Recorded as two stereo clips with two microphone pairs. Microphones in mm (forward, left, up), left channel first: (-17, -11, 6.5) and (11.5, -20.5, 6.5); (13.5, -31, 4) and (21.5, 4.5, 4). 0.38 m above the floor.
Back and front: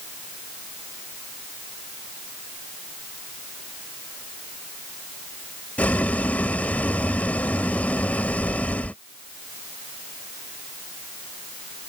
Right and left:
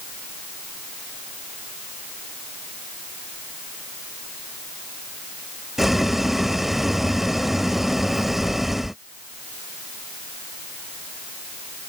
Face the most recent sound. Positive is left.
turn(degrees=160)